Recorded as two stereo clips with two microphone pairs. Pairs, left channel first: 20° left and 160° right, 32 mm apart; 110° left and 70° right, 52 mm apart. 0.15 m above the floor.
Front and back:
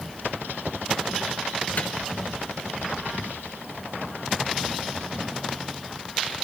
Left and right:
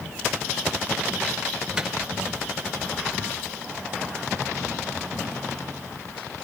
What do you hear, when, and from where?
1.8 s a microwave: straight ahead, 2.5 m